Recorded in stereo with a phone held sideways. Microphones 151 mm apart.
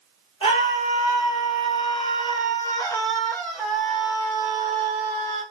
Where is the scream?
35° left (ahead or behind), 1.4 m; by 5.4 s 15° right (ahead or behind), 1.5 m.